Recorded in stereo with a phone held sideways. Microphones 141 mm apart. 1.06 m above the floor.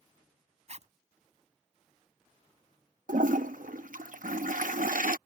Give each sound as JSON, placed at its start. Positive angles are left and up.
{"t": 0.7, "sound": "a zipper", "side_deg": -55}
{"t": 3.1, "sound": "a toilet flushing", "side_deg": -75}